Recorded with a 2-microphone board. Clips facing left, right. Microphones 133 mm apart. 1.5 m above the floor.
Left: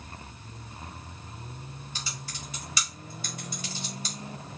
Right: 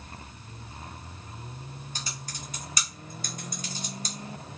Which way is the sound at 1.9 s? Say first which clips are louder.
Left 1 dB; 45° right (ahead or behind).